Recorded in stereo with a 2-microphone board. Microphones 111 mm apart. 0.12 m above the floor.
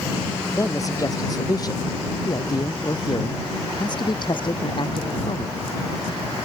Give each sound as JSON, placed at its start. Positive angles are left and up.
{"t": 0.5, "sound": "a man speaking", "side_deg": 30}